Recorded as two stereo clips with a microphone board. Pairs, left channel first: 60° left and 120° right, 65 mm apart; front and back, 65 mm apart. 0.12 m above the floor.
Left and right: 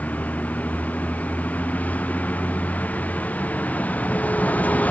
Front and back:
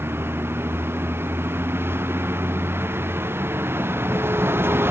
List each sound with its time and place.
0.0 s a vehicle: 125° left